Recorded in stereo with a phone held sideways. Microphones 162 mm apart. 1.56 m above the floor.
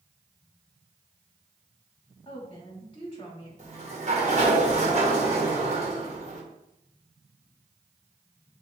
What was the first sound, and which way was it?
A woman speaking, 35° left (ahead or behind).